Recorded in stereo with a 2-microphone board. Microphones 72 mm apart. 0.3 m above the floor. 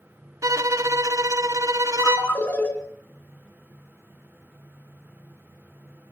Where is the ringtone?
25° left (ahead or behind), 3 m.